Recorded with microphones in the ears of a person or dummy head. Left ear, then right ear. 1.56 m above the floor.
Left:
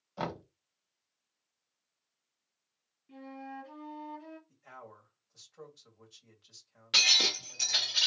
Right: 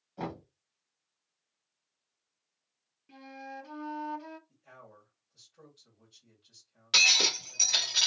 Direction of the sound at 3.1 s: 40° right (ahead or behind).